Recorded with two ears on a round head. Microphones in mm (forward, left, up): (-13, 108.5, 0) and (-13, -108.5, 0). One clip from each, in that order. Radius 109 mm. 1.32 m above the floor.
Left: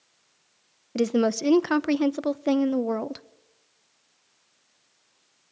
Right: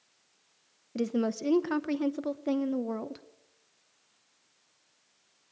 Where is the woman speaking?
25° left (ahead or behind), 0.5 m.